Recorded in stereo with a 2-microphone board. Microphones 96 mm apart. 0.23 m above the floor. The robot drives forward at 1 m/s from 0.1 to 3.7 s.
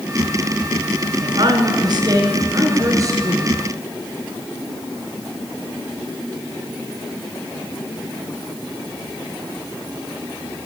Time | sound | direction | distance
1.2 | a woman speaking | 55° right (ahead or behind) | 2.5 m